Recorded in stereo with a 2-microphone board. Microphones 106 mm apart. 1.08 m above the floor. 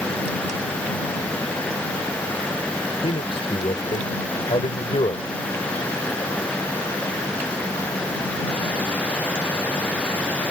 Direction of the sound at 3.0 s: 55° left (ahead or behind).